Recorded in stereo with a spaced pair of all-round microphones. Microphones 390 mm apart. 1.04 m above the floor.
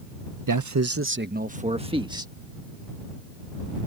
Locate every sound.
0.5 s a man speaking: 55° right (ahead or behind); by 2.3 s 10° right (ahead or behind)